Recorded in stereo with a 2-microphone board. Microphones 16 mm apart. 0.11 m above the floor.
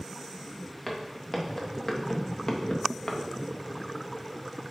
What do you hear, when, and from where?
0.9 s footsteps: 10° left (ahead or behind), 2 m; by 3.2 s 40° left (ahead or behind), 1.4 m